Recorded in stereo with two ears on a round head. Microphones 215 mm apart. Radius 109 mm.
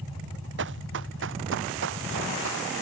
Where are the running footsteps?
55° right (ahead or behind); by 2.7 s 60° right (ahead or behind).